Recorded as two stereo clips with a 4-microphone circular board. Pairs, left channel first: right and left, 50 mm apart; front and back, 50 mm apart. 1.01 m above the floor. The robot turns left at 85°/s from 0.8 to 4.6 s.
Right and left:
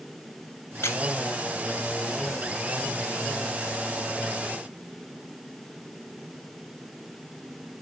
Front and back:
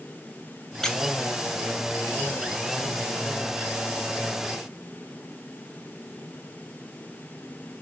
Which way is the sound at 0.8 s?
80° right.